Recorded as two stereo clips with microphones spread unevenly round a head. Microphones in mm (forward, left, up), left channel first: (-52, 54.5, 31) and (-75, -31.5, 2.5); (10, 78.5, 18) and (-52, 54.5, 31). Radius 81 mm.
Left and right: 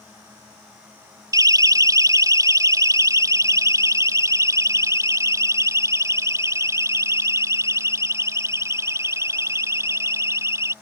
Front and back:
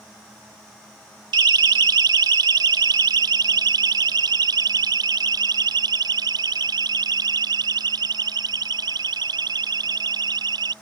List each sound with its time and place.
1.3 s a siren: 155° right; by 10.7 s 165° right